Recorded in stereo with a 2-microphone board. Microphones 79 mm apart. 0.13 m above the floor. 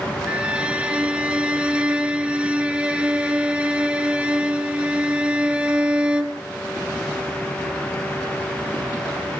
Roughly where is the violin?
Centre.